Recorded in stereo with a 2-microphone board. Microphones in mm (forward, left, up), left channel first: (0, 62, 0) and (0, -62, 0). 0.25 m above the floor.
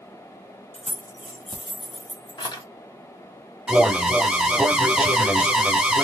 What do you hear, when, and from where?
0.7 s keys jangling: 60° left (ahead or behind), 1.6 m; by 2.6 s 30° left (ahead or behind), 1.1 m
3.7 s an alarm: 10° right (ahead or behind), 0.7 m